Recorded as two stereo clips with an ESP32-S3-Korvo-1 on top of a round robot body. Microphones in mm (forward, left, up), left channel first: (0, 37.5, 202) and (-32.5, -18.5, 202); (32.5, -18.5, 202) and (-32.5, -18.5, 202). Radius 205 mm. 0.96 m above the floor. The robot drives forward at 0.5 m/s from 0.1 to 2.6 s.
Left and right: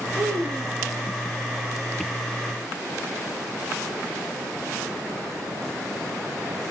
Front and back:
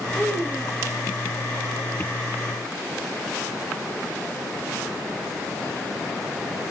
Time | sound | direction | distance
0.1 | a child speaking | 125° right | 5 m